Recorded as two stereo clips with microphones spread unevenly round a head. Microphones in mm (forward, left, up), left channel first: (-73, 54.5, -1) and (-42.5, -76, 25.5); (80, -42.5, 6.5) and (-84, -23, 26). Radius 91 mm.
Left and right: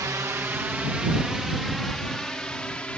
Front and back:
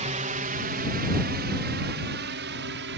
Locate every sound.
0.0 s a drone: 145° right; by 3.0 s 175° right